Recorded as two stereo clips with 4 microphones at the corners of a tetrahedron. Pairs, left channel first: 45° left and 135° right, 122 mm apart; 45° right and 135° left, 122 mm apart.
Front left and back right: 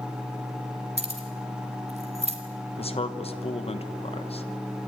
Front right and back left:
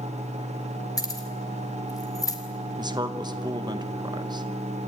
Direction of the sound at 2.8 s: 80° left.